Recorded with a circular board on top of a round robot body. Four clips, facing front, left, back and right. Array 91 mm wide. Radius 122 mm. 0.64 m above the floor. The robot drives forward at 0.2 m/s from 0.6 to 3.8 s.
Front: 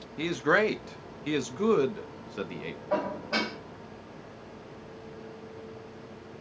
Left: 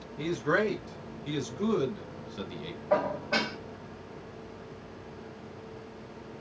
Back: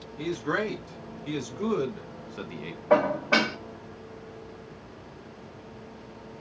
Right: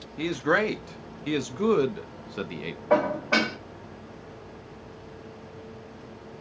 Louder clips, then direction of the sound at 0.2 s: Right 3 dB, front 4 dB; 40° right.